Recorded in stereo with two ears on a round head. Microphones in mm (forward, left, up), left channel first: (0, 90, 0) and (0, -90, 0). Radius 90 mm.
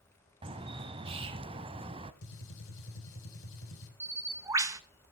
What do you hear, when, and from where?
0.4 s a bird: 30° right (ahead or behind), 1.0 m
2.2 s a gunshot: 70° left (ahead or behind), 3 m
4.0 s a bird: 15° right (ahead or behind), 1.0 m